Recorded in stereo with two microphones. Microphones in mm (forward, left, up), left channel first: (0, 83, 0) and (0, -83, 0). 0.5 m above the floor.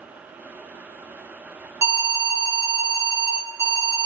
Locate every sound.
1.8 s an alarm: 20° right (ahead or behind), 1.2 m